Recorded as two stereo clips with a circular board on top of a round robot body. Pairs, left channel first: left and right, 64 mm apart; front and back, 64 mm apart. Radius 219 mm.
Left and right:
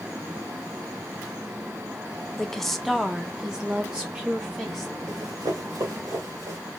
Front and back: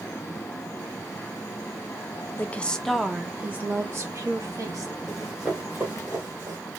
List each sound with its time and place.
2.4 s a woman speaking: 15° left, 1.0 m; by 5.0 s 160° right, 1.6 m
5.1 s running footsteps: 85° right, 1.0 m; by 6.6 s 135° right, 1.6 m